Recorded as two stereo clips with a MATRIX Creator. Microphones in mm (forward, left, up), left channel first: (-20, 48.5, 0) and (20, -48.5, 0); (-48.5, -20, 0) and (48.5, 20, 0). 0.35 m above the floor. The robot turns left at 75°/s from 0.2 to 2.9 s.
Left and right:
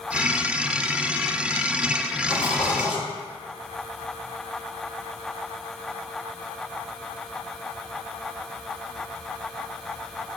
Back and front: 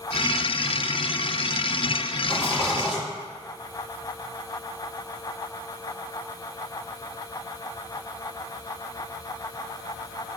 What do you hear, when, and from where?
2.3 s a rattle: 145° left, 1.3 m; by 3.0 s 100° left, 1.3 m